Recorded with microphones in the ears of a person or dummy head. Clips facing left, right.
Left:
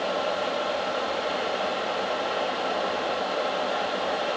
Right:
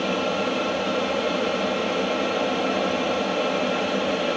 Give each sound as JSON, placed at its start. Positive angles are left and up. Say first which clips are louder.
{"t": 0.0, "sound": "an aircraft", "louder": "right 3 dB", "side_deg": -35}